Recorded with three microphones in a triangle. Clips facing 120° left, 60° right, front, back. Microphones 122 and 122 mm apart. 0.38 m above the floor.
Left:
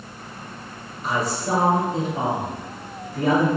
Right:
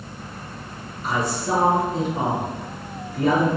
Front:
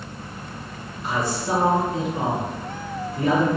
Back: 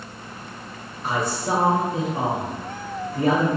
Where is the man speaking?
160° right, 1.1 m.